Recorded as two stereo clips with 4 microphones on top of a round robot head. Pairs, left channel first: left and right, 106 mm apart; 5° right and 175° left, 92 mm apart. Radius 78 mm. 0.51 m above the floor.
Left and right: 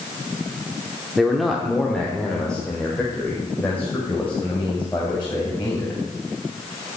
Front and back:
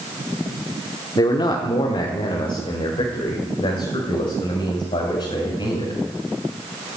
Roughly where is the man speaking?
Ahead.